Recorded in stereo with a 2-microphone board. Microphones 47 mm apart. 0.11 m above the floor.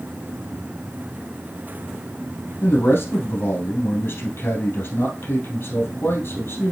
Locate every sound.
2.6 s a man speaking: 55° left (ahead or behind), 3 m